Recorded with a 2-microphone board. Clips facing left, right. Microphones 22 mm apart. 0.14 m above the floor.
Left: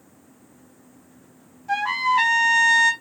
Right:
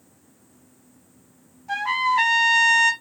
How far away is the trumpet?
About 1.0 m.